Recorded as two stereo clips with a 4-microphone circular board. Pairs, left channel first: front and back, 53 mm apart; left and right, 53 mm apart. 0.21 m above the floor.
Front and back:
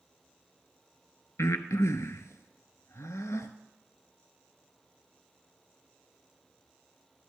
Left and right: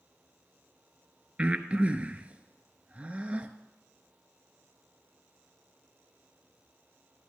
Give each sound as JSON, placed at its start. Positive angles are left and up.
{"t": 1.4, "sound": "breathing", "azimuth_deg": -25, "distance_m": 0.6}